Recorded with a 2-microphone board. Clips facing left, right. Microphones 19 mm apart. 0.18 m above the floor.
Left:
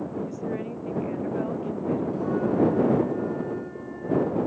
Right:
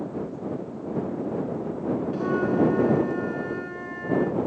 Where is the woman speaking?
60° left (ahead or behind); by 2.0 s 70° left (ahead or behind).